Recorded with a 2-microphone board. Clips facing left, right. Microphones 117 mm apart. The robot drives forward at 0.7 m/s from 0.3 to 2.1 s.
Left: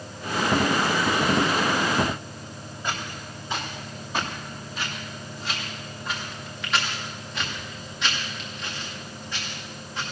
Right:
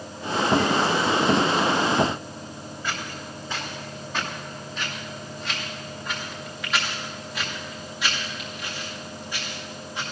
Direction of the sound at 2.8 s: 20° left (ahead or behind).